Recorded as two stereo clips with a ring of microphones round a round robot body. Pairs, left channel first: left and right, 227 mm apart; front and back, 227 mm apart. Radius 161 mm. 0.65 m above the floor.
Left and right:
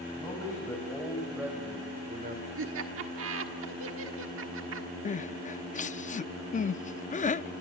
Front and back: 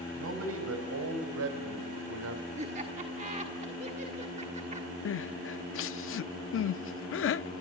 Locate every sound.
0.1 s a man speaking: 165° left, 4.5 m; by 2.5 s 145° right, 2.5 m
2.5 s laughter: 115° right, 1.5 m
5.0 s crying: 30° left, 0.5 m